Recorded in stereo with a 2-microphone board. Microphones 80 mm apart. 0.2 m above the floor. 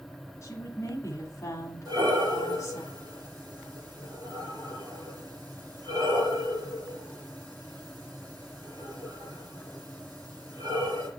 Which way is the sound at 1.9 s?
50° right (ahead or behind).